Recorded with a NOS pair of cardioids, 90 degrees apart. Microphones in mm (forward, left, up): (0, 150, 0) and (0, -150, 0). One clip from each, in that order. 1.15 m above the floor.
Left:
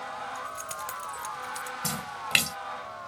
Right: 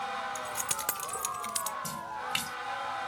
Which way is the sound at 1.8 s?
65° left.